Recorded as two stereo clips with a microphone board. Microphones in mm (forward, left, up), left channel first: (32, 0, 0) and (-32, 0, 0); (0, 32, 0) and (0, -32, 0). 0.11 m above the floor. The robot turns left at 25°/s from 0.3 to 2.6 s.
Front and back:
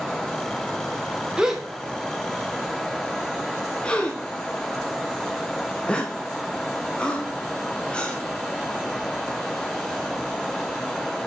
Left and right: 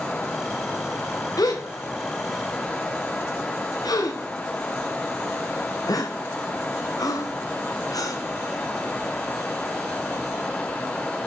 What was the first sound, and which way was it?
A gasp, 105° left.